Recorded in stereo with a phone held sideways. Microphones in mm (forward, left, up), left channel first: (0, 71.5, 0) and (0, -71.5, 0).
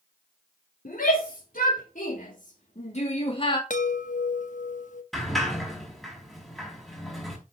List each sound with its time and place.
0.8 s a shout: 80° left, 4.5 m; by 3.6 s 35° left (ahead or behind), 2 m
3.7 s a chime: 60° left (ahead or behind), 1.3 m
5.1 s a sliding door: centre (ahead or behind), 5 m